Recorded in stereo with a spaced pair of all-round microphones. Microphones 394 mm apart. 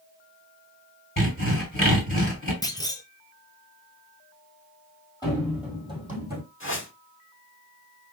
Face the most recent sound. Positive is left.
turn(degrees=30)  # may be behind; listen again after turning